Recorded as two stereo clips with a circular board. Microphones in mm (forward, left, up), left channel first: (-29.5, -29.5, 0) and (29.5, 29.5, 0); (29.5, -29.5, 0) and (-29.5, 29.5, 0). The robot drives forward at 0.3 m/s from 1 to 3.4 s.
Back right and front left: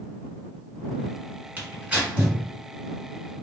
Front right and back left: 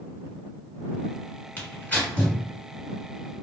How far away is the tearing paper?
About 1.6 m.